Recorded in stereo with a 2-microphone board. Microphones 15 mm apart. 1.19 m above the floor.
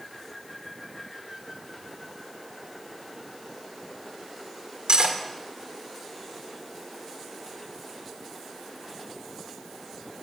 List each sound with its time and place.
4.9 s cutlery clinking: 70° right (ahead or behind), 2.5 m